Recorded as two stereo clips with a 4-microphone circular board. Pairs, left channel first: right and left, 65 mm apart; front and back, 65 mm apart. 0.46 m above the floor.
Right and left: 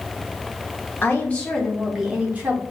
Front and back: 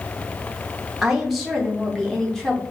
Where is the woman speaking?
100° right, 0.9 m; by 2.6 s 70° left, 0.9 m.